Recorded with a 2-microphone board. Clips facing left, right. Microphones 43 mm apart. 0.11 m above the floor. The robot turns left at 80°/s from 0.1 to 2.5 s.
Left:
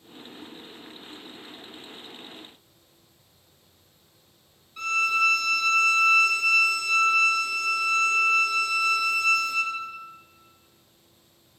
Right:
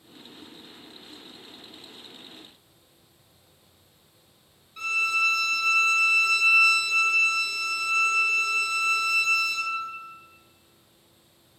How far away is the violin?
About 1.0 m.